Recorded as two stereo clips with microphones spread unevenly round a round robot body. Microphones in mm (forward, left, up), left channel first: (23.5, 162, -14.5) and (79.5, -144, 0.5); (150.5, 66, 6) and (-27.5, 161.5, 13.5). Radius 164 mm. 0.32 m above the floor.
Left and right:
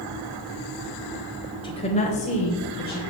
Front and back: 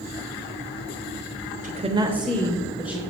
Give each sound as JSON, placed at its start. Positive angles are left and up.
{"t": 1.6, "sound": "a woman speaking", "azimuth_deg": 160, "distance_m": 1.1}